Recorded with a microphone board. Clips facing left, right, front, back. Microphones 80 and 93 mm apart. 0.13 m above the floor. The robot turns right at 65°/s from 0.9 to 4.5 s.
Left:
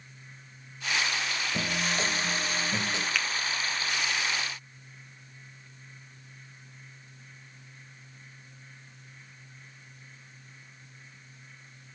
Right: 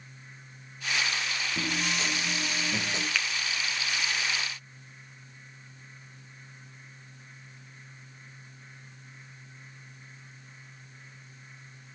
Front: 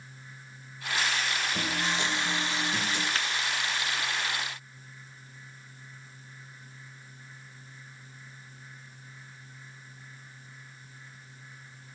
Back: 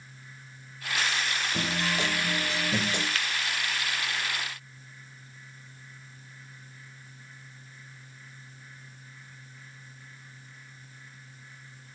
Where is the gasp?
No gasp in this recording.